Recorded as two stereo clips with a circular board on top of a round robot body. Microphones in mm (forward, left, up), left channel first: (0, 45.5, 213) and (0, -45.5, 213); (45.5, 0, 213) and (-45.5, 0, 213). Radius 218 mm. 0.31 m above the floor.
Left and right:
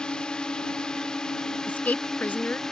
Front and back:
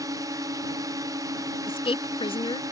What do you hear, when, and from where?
0.0 s a drone: 165° left; by 2.7 s 170° left
1.7 s a woman speaking: 15° left